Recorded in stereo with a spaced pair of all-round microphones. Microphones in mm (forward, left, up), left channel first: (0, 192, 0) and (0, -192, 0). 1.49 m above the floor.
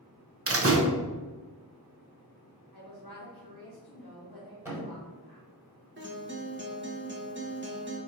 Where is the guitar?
30° right (ahead or behind), 0.7 m.